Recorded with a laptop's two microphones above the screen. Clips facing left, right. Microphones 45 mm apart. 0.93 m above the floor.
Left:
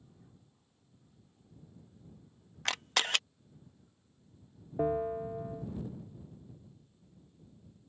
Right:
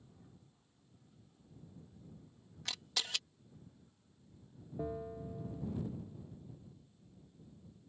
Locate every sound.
2.6 s a camera shutter: 50° left (ahead or behind)
4.8 s a bell: 45° left (ahead or behind)